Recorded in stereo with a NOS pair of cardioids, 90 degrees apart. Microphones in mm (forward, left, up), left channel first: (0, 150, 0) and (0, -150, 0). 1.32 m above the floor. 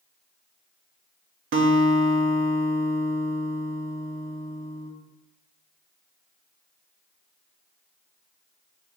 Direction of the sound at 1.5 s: 45° right.